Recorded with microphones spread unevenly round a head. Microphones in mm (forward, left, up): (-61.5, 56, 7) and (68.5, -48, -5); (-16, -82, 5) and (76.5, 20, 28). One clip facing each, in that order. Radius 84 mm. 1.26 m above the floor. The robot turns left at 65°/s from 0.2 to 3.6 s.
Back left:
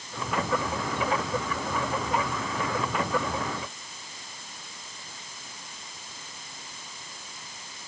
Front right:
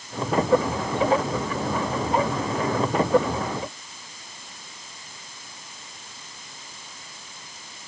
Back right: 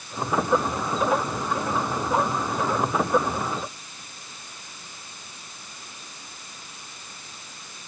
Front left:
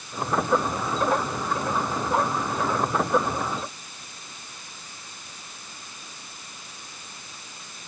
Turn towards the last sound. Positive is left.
No sound to turn to.